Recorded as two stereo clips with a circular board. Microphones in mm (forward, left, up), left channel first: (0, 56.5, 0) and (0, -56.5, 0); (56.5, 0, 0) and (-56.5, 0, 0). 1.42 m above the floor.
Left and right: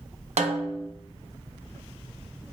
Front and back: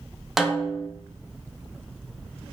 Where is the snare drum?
95° right, 0.5 m.